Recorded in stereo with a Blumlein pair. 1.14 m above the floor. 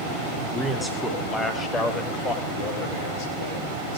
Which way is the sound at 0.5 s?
5° left.